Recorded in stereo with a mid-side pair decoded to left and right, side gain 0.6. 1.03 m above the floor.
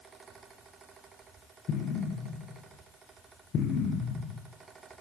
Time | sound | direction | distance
0.0 | a fan | 30° right | 4.5 m
1.7 | an explosion | 50° left | 6.5 m